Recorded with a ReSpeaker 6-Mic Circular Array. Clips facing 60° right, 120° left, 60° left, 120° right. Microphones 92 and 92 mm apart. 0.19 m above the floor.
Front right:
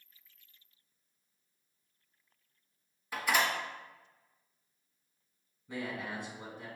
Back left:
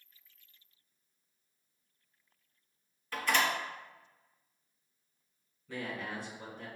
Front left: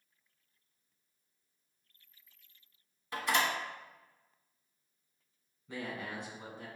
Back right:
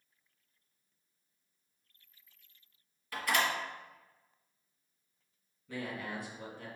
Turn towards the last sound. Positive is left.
turn(degrees=0)